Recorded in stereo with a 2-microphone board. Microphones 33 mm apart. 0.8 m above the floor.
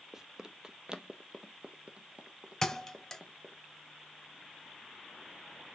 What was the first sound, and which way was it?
Running footsteps, 15° right (ahead or behind).